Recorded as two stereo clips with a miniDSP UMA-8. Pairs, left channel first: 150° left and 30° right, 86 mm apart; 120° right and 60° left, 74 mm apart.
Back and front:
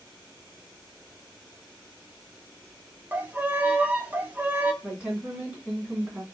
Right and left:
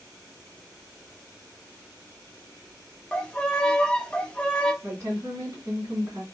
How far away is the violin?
About 0.6 m.